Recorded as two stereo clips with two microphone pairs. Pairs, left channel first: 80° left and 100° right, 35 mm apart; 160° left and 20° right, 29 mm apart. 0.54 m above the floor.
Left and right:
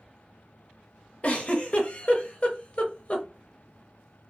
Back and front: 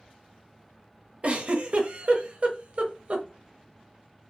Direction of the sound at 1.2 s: 25° left.